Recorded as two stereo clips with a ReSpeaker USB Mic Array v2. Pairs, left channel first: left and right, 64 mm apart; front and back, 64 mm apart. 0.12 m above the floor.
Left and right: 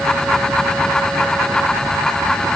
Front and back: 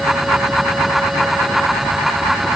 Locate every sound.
Only background noise.